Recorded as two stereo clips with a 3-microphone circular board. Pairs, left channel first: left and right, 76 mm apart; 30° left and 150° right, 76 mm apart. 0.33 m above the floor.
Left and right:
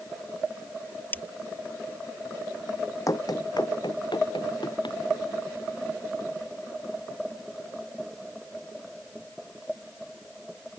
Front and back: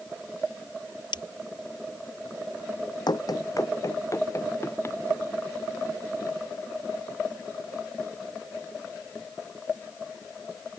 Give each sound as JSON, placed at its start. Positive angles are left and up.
{"t": 1.1, "sound": "breaking glass", "azimuth_deg": 25}
{"t": 3.1, "sound": "running footsteps", "azimuth_deg": 50}